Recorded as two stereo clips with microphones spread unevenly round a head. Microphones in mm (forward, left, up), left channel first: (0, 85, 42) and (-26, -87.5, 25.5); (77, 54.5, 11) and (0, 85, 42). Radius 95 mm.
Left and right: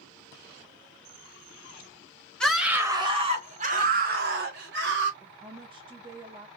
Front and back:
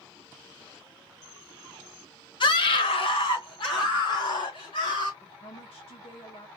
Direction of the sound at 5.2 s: 35° right.